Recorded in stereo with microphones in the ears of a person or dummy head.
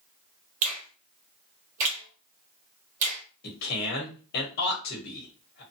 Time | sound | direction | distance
0.6 | a finger snap | 40° right (ahead or behind) | 1.2 m
3.4 | a man speaking | 60° left (ahead or behind) | 1.3 m